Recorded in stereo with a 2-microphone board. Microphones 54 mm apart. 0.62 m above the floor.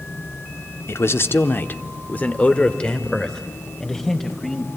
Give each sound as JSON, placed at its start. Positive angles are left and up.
{"t": 0.9, "sound": "a man speaking", "side_deg": 55, "distance_m": 1.1}